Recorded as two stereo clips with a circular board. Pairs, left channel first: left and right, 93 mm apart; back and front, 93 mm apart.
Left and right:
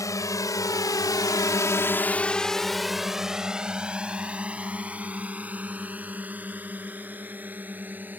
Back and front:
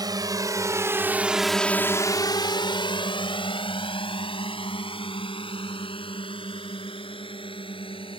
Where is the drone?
40° left; by 8.2 s 160° right.